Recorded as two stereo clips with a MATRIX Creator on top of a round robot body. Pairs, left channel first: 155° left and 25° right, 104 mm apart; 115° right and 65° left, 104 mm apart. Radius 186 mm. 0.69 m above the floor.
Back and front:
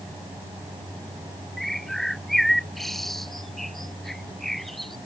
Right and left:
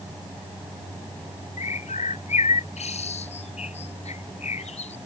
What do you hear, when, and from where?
1.6 s a bird: 115° right